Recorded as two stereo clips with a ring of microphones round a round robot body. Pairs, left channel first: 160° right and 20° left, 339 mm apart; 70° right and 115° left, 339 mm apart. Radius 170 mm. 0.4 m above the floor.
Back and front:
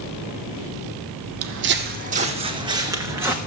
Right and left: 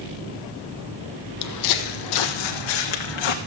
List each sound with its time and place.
1.4 s footsteps: 25° right, 0.9 m; by 3.4 s 60° right, 1.8 m